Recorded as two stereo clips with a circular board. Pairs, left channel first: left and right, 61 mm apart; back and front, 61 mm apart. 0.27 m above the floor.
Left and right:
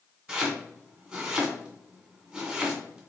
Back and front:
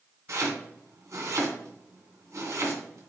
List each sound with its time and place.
0.3 s chopping: 10° right, 2.5 m